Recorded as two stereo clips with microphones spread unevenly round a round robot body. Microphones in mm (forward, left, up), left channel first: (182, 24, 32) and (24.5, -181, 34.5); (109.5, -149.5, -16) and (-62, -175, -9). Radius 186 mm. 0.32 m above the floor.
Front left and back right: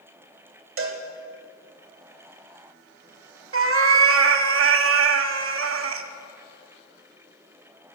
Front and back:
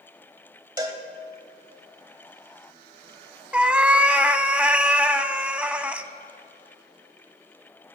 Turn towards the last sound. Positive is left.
turn(degrees=-85)